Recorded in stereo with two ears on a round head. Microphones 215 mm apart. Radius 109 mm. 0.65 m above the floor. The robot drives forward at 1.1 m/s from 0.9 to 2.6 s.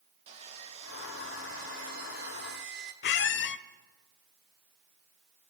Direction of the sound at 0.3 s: 25° right (ahead or behind).